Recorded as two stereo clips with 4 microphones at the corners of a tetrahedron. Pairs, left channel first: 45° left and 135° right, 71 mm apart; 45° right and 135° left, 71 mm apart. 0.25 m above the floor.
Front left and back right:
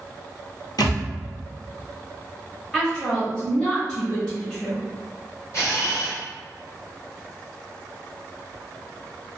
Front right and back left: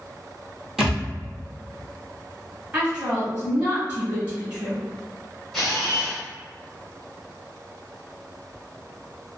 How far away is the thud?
About 1.0 m.